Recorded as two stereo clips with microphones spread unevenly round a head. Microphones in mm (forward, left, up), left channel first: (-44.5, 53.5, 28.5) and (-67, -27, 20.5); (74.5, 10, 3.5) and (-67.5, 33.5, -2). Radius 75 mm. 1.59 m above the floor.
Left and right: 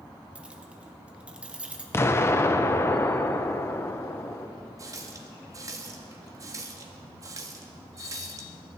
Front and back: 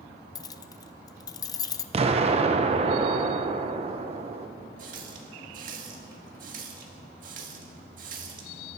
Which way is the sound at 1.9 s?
125° left.